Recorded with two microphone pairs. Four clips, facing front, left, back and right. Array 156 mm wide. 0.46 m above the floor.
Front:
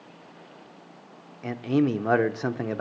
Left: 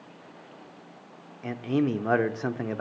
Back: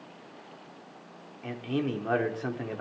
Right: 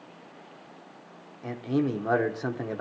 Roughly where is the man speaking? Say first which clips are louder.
Left 1 dB, front 7 dB; ahead.